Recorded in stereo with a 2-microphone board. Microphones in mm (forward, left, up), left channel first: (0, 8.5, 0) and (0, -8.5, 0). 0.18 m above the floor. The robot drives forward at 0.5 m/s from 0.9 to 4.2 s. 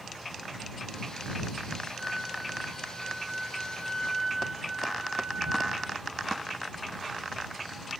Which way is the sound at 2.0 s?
15° left (ahead or behind).